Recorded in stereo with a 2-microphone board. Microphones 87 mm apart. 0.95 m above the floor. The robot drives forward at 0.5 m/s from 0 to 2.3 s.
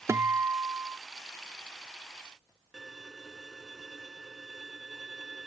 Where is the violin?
Centre (ahead or behind).